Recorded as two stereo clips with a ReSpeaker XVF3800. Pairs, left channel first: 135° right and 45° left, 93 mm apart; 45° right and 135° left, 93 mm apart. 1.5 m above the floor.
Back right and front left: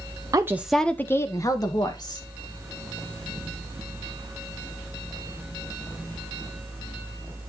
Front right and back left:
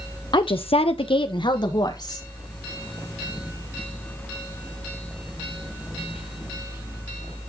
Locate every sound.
0.3 s a woman speaking: 5° right, 0.6 m; by 2.2 s 95° right, 1.9 m